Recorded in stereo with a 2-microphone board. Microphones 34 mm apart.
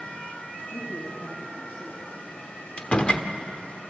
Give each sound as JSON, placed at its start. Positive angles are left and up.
{"t": 0.7, "sound": "a woman speaking", "side_deg": 65, "distance_m": 4.0}
{"t": 2.8, "sound": "a door slam", "side_deg": 30, "distance_m": 1.2}